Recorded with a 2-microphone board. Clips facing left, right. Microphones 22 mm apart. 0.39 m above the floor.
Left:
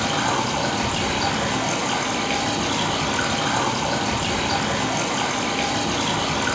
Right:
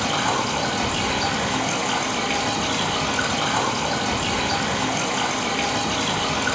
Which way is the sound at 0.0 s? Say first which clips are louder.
Even; 5° left (ahead or behind).